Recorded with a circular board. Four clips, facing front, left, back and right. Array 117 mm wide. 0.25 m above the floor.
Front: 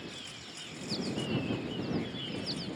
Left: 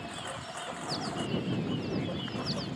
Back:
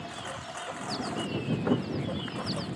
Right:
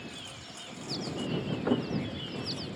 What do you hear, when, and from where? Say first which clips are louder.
0.0 s a lawn mower: left 6 dB, back 8 dB; 145° left; by 2.8 s 155° left
1.6 s a thud: right 6 dB, back 10 dB; 145° right